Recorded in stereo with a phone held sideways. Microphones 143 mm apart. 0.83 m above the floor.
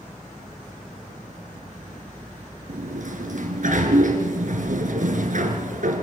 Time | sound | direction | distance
2.7 | a sliding door | 65° right (ahead or behind) | 2.5 m